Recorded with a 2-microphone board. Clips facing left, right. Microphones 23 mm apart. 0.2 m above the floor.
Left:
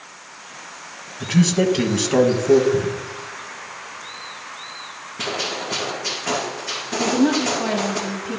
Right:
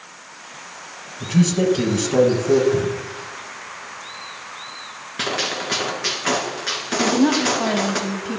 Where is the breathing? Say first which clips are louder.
Even; 65° right (ahead or behind), 4.5 m.